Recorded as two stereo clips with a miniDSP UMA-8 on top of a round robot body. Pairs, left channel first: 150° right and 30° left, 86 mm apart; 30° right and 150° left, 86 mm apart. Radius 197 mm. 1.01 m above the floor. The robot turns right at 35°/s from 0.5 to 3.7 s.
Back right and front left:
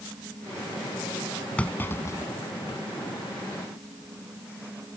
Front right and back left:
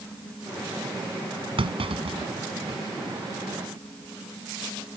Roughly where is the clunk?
Behind left.